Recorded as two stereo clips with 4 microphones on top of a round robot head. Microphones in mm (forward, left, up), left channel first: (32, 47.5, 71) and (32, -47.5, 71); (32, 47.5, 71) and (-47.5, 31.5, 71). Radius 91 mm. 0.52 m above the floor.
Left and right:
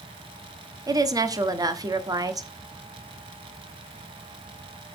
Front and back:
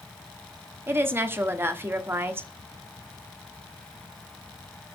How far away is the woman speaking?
About 1.4 m.